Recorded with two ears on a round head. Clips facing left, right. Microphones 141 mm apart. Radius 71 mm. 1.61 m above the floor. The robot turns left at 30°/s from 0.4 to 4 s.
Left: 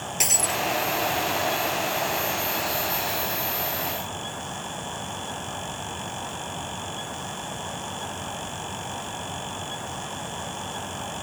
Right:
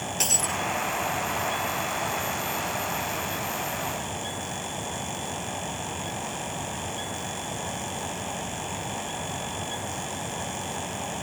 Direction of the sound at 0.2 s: 10° left (ahead or behind).